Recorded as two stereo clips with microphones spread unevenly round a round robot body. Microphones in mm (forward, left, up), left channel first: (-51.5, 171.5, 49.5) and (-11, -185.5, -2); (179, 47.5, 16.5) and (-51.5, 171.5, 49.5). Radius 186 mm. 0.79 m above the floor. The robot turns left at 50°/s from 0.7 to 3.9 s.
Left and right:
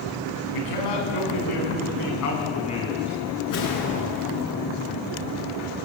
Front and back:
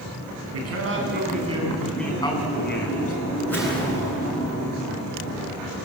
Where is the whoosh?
60° left, 7 m; by 4.4 s 35° left, 7 m.